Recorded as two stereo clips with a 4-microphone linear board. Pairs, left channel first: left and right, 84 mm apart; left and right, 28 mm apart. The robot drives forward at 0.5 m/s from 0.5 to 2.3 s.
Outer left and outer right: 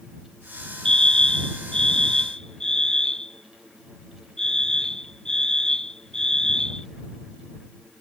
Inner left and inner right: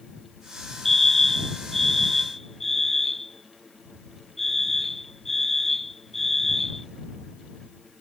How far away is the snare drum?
No snare drum in this recording.